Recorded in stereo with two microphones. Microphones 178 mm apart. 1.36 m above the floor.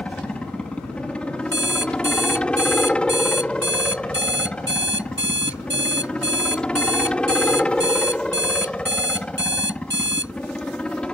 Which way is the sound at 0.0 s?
5° left (ahead or behind).